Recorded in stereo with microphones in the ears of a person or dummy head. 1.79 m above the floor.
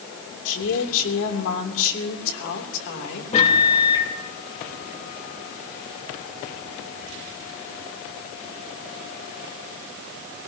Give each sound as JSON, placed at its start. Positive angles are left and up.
{"t": 0.5, "sound": "a woman speaking", "side_deg": 70, "distance_m": 3.5}
{"t": 3.3, "sound": "a microwave", "side_deg": 30, "distance_m": 2.5}